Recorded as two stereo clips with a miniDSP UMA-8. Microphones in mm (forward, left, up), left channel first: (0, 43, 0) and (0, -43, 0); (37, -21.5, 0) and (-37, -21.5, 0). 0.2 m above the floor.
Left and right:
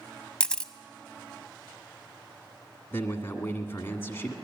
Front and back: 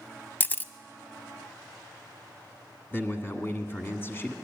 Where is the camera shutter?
25° left, 0.6 m.